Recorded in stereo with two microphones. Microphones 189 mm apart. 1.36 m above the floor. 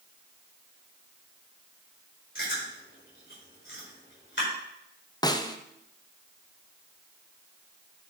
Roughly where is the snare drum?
Left.